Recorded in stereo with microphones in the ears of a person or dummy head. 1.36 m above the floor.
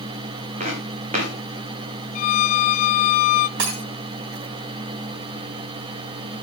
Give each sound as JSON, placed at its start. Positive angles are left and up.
{"t": 0.6, "sound": "footsteps", "side_deg": -45, "distance_m": 7.5}
{"t": 2.1, "sound": "a violin", "side_deg": 50, "distance_m": 0.5}
{"t": 3.6, "sound": "breaking glass", "side_deg": -65, "distance_m": 3.5}